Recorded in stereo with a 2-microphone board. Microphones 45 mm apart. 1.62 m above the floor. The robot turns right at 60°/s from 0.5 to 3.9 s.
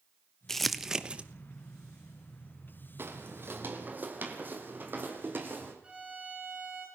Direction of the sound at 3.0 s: 55° right (ahead or behind).